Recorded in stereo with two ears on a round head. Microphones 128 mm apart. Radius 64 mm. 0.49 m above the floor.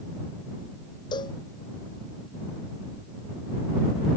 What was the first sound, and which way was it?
A cowbell, 30° left (ahead or behind).